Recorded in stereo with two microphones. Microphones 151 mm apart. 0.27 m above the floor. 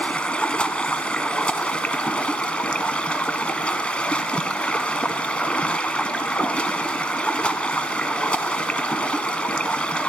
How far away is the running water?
About 0.8 m.